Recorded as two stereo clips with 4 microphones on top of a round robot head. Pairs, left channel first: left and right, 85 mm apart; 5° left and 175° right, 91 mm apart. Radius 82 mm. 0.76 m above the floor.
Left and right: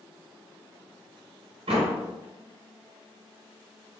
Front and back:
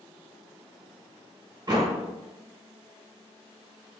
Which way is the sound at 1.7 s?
120° right.